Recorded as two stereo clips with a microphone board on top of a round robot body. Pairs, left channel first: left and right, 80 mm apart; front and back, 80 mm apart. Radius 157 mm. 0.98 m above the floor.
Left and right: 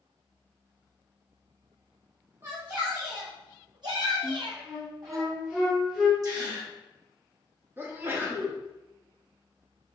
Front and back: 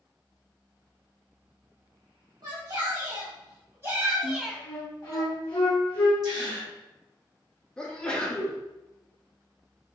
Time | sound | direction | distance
2.4 | a shout | 145° right | 1.3 m
4.2 | a flute | 15° right | 0.9 m
6.2 | a gasp | 140° right | 1.0 m
7.8 | a sneeze | 65° right | 0.9 m